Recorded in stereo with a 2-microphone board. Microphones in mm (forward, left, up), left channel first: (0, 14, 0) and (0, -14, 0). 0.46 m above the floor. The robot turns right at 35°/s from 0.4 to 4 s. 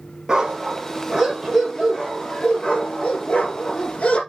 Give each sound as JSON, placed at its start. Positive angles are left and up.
{"t": 0.3, "sound": "a dog barking", "azimuth_deg": -25, "distance_m": 4.0}